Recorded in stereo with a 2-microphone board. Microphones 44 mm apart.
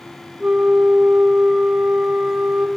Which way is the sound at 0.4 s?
25° right (ahead or behind).